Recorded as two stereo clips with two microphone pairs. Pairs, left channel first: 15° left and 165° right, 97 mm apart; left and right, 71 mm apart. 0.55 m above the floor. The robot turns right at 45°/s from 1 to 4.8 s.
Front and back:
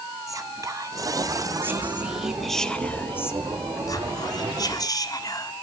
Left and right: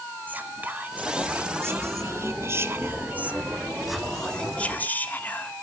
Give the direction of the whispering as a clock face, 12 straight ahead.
5 o'clock.